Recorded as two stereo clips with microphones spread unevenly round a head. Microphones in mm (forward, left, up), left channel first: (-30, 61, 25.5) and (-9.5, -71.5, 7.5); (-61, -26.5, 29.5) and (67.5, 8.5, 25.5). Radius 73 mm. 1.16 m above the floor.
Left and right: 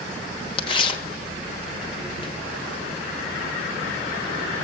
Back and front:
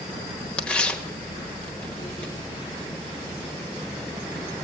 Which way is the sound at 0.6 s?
115° left.